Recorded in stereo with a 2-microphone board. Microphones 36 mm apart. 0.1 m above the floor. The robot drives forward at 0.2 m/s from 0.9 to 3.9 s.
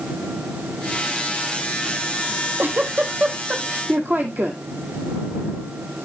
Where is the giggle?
70° right (ahead or behind), 1.7 m; by 4.6 s 65° right (ahead or behind), 1.7 m.